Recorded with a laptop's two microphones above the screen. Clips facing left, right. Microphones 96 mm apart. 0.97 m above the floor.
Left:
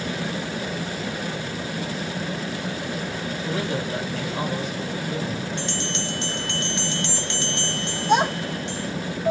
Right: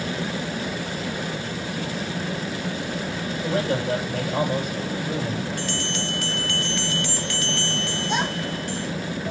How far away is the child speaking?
About 3 m.